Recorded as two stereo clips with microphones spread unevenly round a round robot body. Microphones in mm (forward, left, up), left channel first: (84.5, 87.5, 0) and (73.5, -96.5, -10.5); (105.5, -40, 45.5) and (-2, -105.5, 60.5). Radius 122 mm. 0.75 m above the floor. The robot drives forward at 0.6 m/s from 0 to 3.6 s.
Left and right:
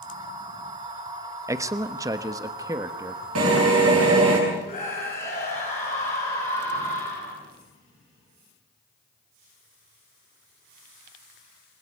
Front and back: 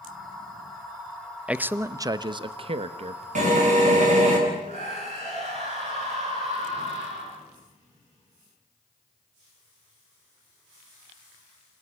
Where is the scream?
150° left, 8.5 m.